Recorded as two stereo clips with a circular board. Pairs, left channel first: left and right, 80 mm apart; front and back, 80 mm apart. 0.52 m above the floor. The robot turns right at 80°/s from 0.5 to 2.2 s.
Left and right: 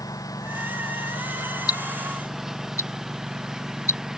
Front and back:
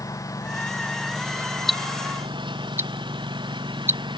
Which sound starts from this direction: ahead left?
A lawn mower, at 0.0 s.